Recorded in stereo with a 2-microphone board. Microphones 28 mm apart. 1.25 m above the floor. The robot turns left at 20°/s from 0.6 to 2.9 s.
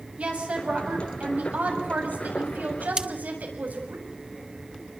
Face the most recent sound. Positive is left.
turn(degrees=-25)  # may be behind; listen again after turning